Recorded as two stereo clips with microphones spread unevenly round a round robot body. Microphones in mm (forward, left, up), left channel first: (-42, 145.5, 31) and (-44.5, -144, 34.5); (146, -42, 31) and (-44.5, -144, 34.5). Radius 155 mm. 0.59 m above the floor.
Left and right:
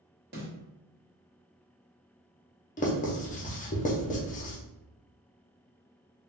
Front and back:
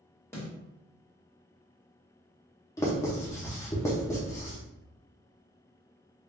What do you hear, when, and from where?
0.3 s a snare drum: 50° right, 1.5 m
2.8 s writing: 85° left, 0.6 m